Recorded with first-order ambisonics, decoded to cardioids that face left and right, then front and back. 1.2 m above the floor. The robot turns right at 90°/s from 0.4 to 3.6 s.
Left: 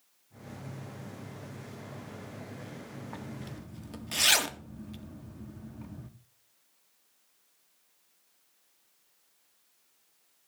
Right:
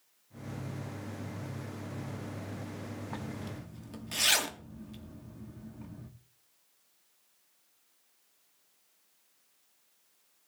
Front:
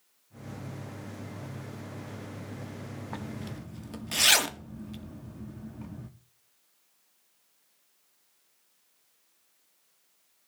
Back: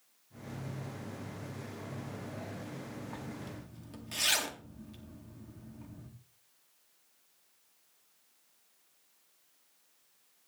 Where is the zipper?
25° right, 0.7 m; by 6.1 s 15° left, 0.7 m.